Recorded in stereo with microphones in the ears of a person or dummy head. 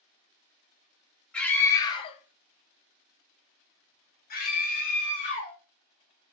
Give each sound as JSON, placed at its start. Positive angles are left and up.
{"t": 1.3, "sound": "a scream", "side_deg": 5, "distance_m": 1.0}